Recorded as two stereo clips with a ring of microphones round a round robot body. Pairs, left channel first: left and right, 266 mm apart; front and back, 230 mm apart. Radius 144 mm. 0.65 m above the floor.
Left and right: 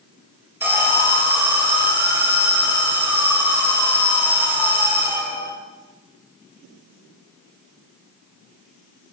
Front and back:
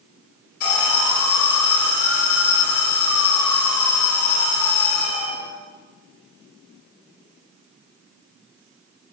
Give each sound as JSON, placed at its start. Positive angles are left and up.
{"t": 0.6, "sound": "an alarm", "azimuth_deg": -5, "distance_m": 3.5}